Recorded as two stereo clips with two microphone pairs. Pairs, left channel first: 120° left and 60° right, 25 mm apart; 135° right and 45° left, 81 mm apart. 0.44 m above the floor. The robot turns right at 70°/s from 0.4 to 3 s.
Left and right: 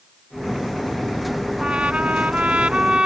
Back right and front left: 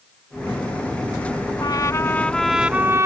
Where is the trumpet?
105° right; by 3.1 s 10° right.